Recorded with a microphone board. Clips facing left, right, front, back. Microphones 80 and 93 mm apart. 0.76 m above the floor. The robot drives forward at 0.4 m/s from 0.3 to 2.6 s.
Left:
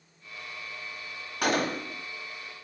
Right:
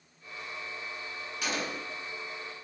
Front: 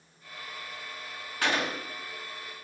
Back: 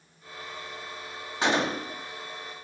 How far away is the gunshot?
About 0.6 m.